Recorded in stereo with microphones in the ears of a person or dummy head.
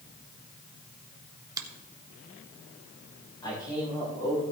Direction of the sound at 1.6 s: 20° right (ahead or behind).